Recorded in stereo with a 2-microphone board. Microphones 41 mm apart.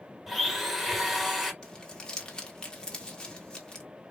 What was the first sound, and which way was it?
A blender, centre (ahead or behind).